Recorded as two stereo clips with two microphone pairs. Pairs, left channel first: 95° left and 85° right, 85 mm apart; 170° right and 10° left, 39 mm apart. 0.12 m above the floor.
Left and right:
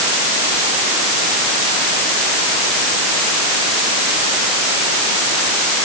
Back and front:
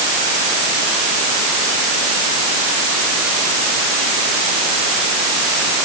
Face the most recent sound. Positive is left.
No sound to turn to.